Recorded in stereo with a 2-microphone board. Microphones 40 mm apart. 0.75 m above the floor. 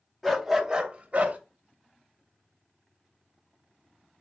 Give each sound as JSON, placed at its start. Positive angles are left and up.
{"t": 0.2, "sound": "a dog barking", "side_deg": 5, "distance_m": 0.8}